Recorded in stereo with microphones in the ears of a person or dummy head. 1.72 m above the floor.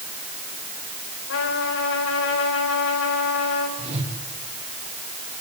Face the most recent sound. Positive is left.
turn(degrees=-35)  # may be behind; listen again after turning